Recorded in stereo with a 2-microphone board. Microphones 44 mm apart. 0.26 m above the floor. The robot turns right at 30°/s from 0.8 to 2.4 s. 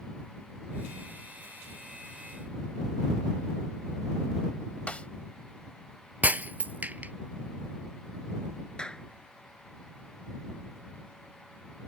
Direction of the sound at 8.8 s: 20° left (ahead or behind).